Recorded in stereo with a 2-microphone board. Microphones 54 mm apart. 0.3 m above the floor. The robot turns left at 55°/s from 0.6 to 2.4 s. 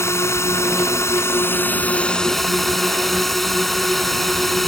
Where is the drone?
100° left; by 4.7 s 5° left.